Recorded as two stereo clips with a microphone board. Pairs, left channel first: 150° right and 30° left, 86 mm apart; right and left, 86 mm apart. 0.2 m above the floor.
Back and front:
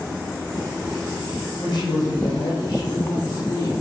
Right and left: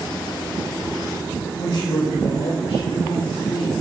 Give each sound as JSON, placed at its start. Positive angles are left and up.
{"t": 1.6, "sound": "a woman speaking", "azimuth_deg": -110, "distance_m": 8.5}